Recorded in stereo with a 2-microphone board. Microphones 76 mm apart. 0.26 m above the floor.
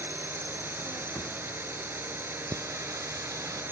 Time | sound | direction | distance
0.0 | a drone | 30° right (ahead or behind) | ?
1.1 | a whoosh | 25° left (ahead or behind) | ?
2.5 | singing | 50° right (ahead or behind) | ?